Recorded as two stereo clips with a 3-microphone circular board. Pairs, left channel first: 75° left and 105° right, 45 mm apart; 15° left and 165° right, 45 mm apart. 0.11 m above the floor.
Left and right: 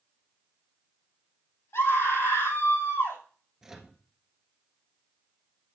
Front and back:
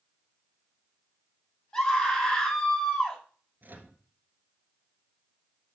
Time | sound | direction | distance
1.7 | a scream | 85° left | 4.5 m
3.6 | a microwave | straight behind | 1.5 m